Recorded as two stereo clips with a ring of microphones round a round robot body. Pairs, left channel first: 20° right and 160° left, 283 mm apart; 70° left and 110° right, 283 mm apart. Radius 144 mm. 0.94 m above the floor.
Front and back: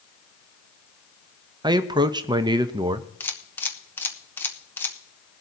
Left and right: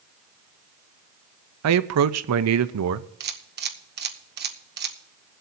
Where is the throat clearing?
I don't hear throat clearing.